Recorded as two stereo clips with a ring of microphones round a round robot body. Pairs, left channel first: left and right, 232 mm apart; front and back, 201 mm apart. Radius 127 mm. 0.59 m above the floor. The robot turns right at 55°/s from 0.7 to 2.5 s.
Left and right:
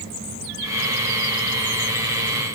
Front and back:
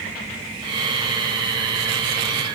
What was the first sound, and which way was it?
Only background noise.